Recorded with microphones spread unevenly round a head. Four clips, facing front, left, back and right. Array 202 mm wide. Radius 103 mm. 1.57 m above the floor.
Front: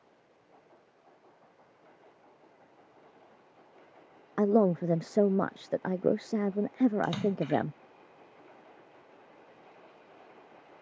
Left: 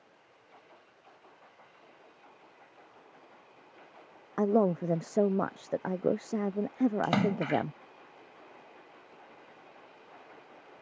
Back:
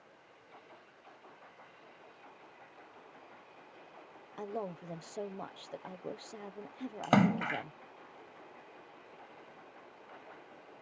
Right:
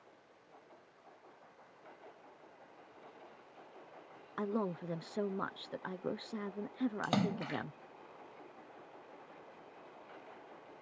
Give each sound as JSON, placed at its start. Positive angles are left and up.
{"t": 4.4, "sound": "a man speaking", "azimuth_deg": 30}
{"t": 7.0, "sound": "a splash", "azimuth_deg": 165}